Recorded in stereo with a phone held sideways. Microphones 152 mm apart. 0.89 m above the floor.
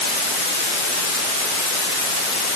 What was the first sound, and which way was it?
Only background noise.